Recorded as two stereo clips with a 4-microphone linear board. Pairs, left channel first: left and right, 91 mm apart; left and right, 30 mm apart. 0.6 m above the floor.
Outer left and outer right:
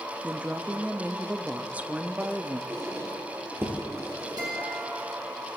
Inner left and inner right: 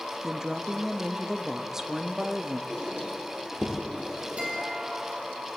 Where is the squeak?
30° right (ahead or behind), 2.5 m.